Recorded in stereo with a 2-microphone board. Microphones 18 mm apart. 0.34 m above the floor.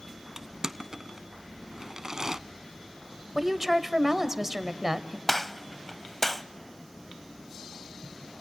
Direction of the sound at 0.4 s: 40° right (ahead or behind).